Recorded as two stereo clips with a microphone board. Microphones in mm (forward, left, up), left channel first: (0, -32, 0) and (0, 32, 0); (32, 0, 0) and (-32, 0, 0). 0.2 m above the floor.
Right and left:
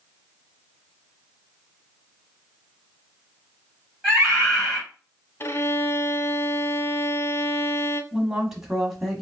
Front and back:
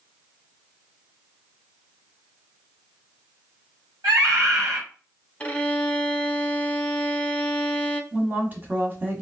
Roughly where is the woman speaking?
Behind.